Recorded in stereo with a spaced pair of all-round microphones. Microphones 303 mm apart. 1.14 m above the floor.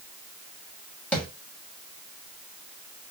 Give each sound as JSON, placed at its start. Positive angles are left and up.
{"t": 1.1, "sound": "tapping", "side_deg": 5, "distance_m": 1.2}